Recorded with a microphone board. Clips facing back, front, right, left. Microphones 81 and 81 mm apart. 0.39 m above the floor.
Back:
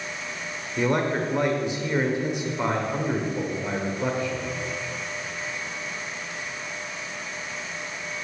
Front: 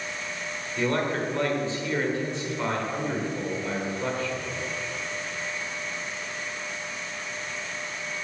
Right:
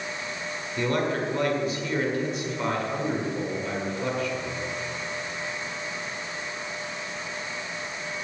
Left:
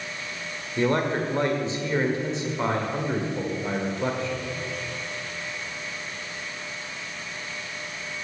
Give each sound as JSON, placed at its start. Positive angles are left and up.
{"t": 0.8, "sound": "a man speaking", "azimuth_deg": 125, "distance_m": 1.4}